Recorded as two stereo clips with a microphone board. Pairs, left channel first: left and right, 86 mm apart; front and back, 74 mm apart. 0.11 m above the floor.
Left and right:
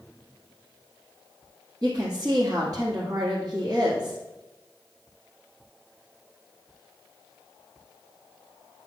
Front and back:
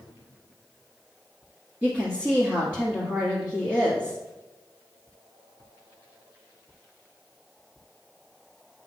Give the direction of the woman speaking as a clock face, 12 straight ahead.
4 o'clock.